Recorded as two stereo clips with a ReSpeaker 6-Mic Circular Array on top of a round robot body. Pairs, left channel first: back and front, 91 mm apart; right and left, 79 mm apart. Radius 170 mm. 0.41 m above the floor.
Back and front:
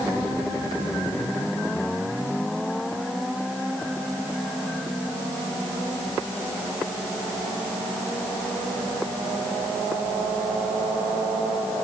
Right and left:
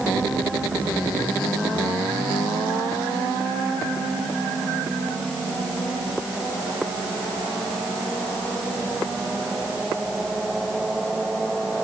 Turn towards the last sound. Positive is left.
No sound to turn to.